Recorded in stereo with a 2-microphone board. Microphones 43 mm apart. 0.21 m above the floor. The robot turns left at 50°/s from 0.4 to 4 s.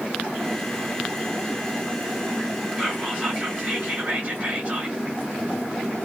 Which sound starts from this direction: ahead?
Whispering, at 2.8 s.